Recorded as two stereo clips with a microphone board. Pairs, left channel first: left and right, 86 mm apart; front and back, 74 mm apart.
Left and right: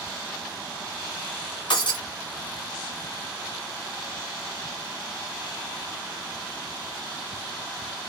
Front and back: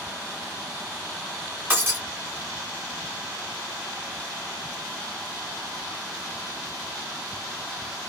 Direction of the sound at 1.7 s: 115° left.